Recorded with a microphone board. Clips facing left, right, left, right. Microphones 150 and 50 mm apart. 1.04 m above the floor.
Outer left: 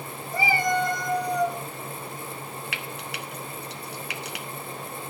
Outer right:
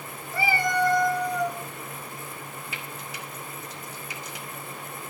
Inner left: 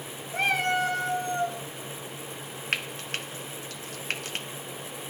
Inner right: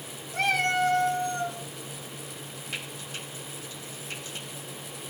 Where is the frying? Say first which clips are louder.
Outer left 3 dB, inner left 7 dB; 85° left, 1.4 m.